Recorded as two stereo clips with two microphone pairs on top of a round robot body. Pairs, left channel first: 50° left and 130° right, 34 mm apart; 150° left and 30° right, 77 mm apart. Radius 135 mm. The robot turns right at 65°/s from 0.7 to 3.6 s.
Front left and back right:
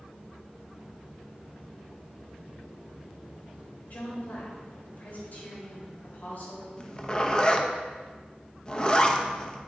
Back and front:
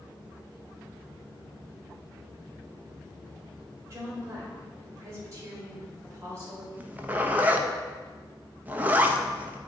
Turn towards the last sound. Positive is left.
turn(degrees=-10)